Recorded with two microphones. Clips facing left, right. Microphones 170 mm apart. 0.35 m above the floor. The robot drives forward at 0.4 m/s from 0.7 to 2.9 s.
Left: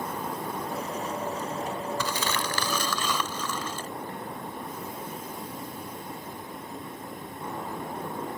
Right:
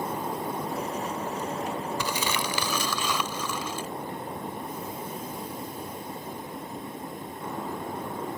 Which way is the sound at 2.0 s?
15° right (ahead or behind).